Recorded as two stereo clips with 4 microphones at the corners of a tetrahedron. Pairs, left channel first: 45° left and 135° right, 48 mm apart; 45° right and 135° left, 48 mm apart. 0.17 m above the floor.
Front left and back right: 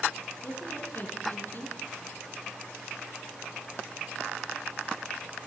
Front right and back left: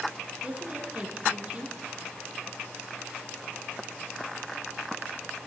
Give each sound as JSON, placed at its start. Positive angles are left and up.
{"t": 0.4, "sound": "a woman speaking", "azimuth_deg": 75, "distance_m": 2.5}